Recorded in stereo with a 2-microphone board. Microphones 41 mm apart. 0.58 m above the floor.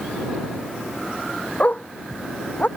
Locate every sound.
1.6 s a dog barking: 35° left (ahead or behind)